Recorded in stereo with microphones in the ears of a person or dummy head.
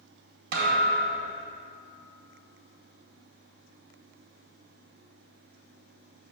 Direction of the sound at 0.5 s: 60° right (ahead or behind).